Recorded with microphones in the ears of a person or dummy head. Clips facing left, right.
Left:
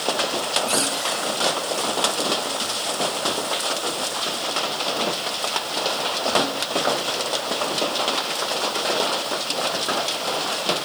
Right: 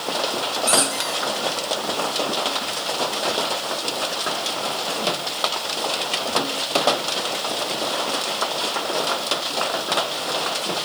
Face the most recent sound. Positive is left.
turn(degrees=-75)  # may be behind; listen again after turning